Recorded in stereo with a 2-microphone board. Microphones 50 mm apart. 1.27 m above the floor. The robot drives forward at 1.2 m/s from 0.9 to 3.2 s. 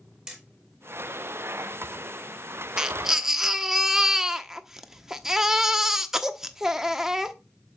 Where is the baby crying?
15° right (ahead or behind), 0.7 m; by 7.3 s 10° right (ahead or behind), 1.0 m.